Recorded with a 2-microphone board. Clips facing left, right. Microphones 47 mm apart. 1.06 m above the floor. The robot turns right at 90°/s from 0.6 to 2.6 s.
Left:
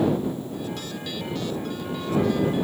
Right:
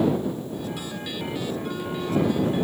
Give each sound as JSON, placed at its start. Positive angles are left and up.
{"t": 1.6, "sound": "a flute", "azimuth_deg": -35}